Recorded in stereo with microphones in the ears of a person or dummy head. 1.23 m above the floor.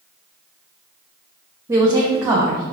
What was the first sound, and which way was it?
A woman speaking, 20° right (ahead or behind).